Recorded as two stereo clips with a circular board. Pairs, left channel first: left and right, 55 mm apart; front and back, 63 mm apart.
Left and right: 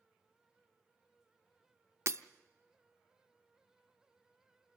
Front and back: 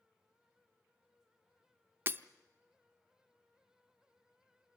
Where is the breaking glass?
125° right, 0.7 m.